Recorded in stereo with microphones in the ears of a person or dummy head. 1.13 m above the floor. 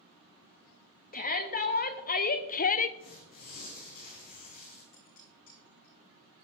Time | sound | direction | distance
1.1 | a shout | 40° left (ahead or behind) | 1.7 m
3.0 | tearing paper | 40° left (ahead or behind) | 4 m
4.9 | dishes clattering | 40° left (ahead or behind) | 8 m